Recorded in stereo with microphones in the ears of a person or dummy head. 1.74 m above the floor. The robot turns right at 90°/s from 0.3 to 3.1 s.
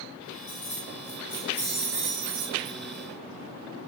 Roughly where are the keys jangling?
Left.